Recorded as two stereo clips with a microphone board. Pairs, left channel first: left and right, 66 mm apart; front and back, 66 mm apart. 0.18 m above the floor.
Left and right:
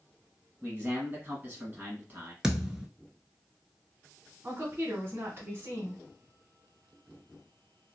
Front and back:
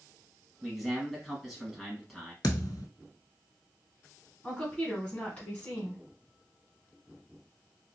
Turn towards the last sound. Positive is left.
turn(degrees=-60)